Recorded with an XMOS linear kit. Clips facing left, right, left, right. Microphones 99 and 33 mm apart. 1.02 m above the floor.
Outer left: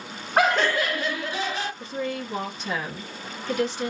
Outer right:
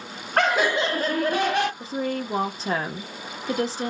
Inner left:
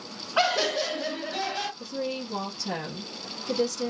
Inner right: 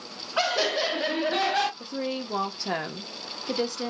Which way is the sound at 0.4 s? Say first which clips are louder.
Even, inner left 1 dB; 10° left (ahead or behind).